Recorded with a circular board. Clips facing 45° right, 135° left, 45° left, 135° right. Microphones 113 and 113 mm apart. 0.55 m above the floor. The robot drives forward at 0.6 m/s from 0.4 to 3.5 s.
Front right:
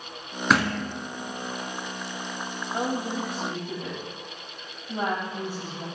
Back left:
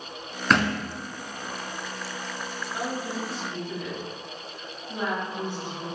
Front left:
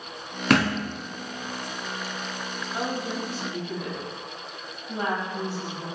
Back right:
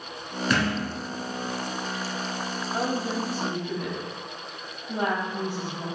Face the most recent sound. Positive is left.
turn(degrees=-95)